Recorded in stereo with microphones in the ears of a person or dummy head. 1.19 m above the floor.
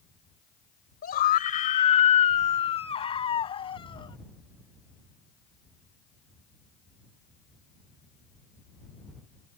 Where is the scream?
45° left (ahead or behind); by 4.2 s 25° left (ahead or behind).